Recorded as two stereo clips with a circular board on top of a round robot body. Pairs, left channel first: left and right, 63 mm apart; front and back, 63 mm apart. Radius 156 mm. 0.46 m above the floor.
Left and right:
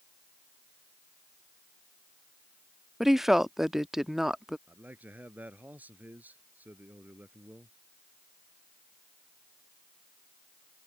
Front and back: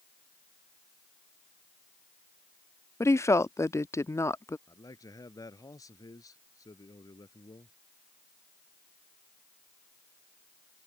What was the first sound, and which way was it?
A woman speaking, 5° right.